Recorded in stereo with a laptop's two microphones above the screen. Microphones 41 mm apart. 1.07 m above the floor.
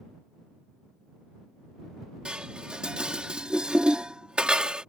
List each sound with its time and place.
2.2 s dishes clattering: 25° right (ahead or behind)